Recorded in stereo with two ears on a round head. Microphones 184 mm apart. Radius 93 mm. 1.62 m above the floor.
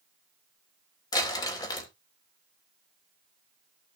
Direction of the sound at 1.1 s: 20° left (ahead or behind).